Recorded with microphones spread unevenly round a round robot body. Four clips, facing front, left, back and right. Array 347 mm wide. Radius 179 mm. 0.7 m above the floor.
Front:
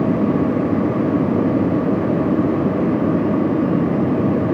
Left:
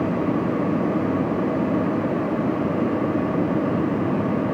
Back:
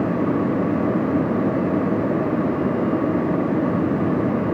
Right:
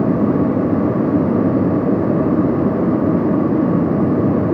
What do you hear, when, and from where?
Only background noise.